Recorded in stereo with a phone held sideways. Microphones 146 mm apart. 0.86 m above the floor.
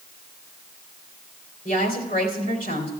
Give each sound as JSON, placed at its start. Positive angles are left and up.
{"t": 1.6, "sound": "a woman speaking", "side_deg": 70, "distance_m": 3.0}